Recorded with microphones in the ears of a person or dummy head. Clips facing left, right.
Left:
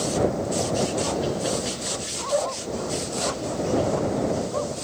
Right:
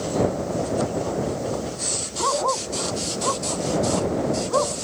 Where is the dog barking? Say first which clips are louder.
Right 1 dB; 80° right; by 4.7 s 85° right.